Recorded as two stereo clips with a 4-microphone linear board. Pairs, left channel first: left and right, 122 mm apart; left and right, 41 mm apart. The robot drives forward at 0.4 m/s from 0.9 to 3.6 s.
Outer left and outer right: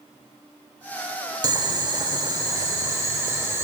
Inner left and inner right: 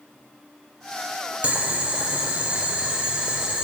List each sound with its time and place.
1.4 s boiling: 30° right (ahead or behind), 0.8 m; by 3.6 s 20° right (ahead or behind), 1.1 m